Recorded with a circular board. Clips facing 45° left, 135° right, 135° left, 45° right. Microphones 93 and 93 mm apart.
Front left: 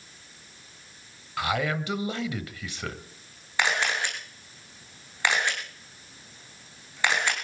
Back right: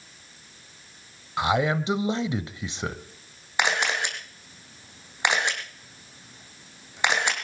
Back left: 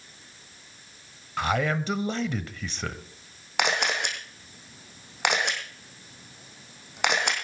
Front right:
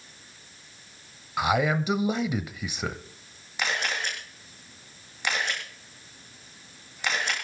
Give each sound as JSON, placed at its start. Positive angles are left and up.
{"t": 1.4, "sound": "a man speaking", "azimuth_deg": -110, "distance_m": 0.9}
{"t": 3.6, "sound": "a camera shutter", "azimuth_deg": 155, "distance_m": 3.0}